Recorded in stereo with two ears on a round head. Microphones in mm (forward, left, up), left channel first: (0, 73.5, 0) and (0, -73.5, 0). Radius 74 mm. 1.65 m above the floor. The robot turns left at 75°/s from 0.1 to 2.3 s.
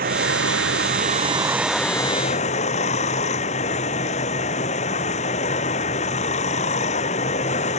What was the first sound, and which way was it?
Running water, 60° right.